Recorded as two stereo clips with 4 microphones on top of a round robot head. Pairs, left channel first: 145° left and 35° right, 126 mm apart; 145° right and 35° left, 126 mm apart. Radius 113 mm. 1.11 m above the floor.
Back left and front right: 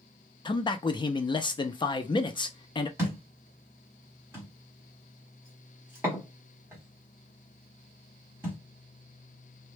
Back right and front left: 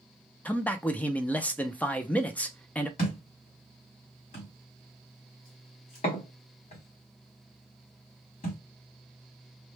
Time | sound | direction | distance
0.5 | a man speaking | 145° left | 0.5 m
3.0 | a thud | 110° right | 1.2 m